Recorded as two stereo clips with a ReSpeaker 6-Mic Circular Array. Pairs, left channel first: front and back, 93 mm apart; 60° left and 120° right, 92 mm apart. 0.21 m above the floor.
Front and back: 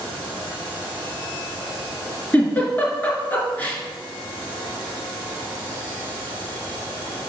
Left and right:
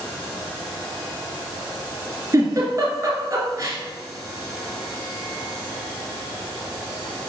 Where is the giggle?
70° right, 2.5 m.